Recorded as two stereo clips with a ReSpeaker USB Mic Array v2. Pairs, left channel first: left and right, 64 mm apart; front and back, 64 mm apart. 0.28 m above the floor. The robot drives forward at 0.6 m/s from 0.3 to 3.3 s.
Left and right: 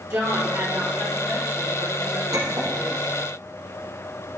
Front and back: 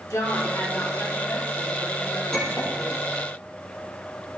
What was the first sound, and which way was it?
A woman speaking, 40° right.